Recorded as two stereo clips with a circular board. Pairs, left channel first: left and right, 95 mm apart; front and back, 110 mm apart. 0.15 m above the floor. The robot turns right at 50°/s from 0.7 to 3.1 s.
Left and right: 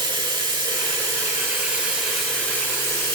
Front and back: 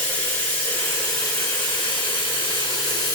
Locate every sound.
0.0 s running water: 75° right, 2 m; by 3.1 s 45° left, 2 m